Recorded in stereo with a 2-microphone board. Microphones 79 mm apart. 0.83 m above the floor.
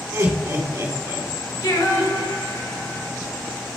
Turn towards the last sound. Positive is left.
turn(degrees=60)  # may be behind; listen again after turning